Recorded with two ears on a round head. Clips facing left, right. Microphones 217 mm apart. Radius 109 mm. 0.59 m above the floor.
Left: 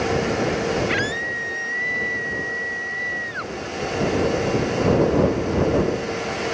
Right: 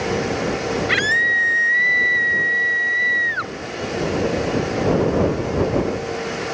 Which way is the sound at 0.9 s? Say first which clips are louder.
Even; 25° right (ahead or behind).